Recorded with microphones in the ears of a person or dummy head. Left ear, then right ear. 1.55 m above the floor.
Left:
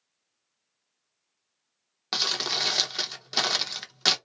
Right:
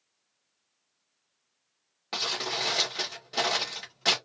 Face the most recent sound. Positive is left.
turn(degrees=55)  # may be behind; listen again after turning